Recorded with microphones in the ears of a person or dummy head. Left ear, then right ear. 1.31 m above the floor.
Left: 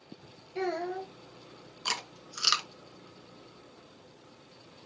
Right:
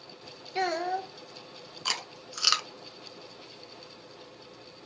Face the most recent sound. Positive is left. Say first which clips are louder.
# right 2 dB
turn(degrees=-10)  # may be behind; listen again after turning